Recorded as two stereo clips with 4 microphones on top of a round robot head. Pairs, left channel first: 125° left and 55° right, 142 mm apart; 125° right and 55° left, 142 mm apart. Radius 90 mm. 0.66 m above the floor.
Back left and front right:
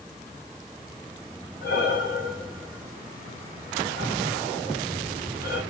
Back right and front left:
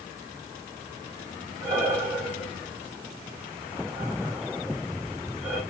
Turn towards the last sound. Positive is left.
turn(degrees=130)